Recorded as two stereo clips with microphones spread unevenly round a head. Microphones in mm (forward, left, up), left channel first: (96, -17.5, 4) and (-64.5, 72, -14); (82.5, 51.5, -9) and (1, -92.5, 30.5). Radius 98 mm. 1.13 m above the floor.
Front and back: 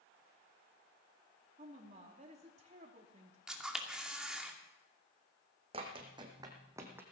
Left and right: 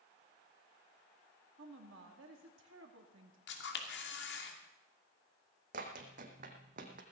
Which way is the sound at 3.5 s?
65° left.